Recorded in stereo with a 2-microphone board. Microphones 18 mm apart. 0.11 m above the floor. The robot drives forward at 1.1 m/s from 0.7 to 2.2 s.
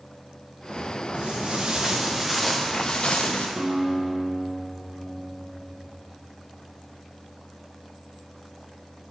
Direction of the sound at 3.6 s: 30° right (ahead or behind).